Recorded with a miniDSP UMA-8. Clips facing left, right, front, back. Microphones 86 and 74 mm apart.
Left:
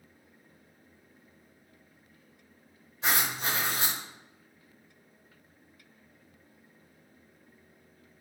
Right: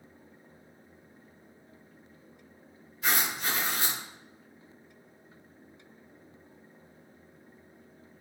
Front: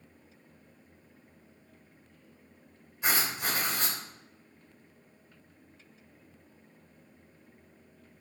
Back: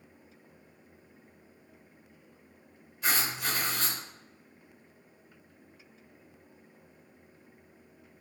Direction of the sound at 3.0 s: 55° left.